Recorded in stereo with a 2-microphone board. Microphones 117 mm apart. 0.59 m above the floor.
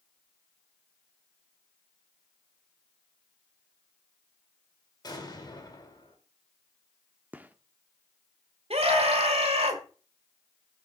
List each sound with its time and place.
5.0 s an explosion: 35° left (ahead or behind), 2 m
7.3 s a gunshot: 15° right (ahead or behind), 0.5 m
8.7 s a scream: 60° right (ahead or behind), 1.9 m